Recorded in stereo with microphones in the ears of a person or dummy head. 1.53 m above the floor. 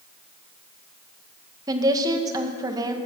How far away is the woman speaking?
About 1.5 m.